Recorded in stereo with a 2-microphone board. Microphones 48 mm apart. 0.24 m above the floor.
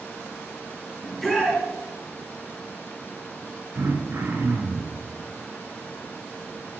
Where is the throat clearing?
55° right (ahead or behind), 2.5 m.